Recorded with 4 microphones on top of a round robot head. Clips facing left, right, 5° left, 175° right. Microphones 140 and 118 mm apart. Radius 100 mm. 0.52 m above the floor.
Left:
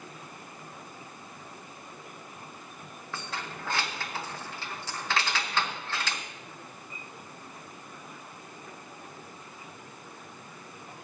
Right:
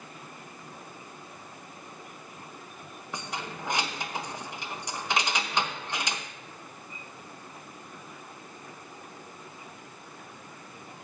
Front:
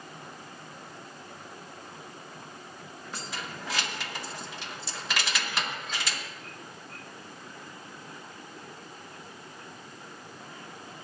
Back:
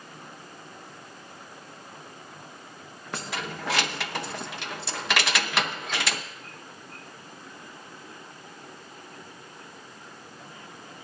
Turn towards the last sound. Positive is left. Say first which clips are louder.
# right 2 dB, back 6 dB
turn(degrees=-160)